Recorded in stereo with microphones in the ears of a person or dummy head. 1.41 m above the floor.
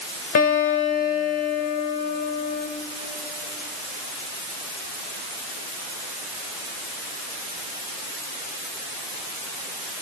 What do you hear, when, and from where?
0.3 s a guitar: 50° left (ahead or behind), 2.5 m